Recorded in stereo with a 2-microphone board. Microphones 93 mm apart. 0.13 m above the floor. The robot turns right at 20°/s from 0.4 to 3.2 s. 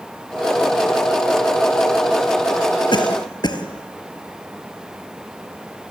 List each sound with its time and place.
2.9 s a cough: 55° left (ahead or behind), 3 m; by 3.6 s 50° left (ahead or behind), 3 m